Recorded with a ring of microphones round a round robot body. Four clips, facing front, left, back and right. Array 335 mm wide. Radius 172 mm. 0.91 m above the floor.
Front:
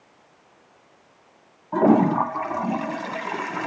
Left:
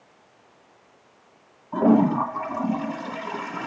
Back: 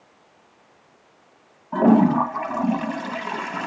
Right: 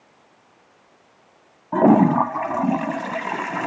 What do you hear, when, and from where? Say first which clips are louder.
1.7 s a toilet flushing: right 4 dB, back 1 dB; 100° right, 1.9 m